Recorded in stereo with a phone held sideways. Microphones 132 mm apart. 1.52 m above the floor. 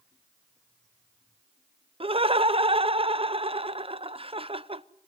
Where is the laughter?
45° right (ahead or behind), 0.8 m.